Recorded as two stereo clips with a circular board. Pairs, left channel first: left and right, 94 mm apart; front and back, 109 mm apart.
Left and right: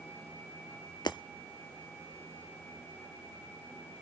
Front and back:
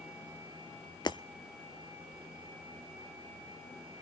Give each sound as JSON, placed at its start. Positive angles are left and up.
{"t": 1.1, "sound": "breaking glass", "azimuth_deg": 50, "distance_m": 0.9}